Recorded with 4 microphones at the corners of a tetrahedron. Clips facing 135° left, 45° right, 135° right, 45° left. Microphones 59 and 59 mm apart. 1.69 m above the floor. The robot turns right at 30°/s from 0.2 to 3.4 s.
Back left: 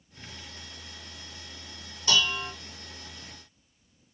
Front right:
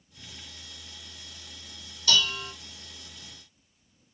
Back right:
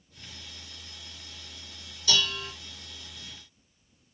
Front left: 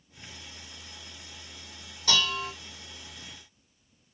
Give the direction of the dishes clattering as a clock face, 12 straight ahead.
10 o'clock.